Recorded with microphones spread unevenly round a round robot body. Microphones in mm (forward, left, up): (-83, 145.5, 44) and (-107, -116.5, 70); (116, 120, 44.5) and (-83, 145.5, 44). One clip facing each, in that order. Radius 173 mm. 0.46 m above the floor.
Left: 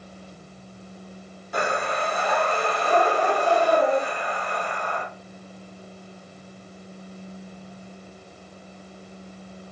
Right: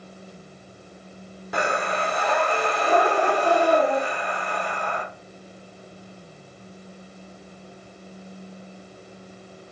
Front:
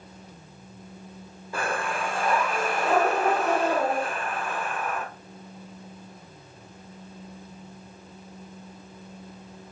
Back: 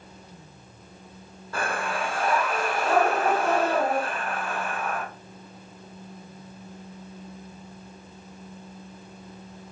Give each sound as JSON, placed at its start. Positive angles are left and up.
{"t": 1.5, "sound": "breathing", "azimuth_deg": -80, "distance_m": 1.1}